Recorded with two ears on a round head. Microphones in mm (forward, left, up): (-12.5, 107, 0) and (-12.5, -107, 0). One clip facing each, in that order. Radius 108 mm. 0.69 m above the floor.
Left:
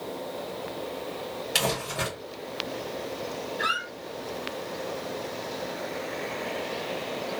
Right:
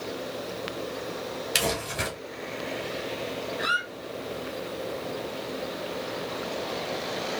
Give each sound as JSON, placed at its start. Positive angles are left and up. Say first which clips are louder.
{"t": 1.6, "sound": "crumpling", "louder": "left 1 dB", "side_deg": -10, "distance_m": 2.0}
{"t": 3.6, "sound": "a squeak", "louder": "right 1 dB", "side_deg": -5, "distance_m": 1.8}